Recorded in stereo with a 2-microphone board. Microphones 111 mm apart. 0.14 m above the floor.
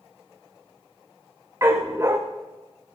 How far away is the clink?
No clink in this recording.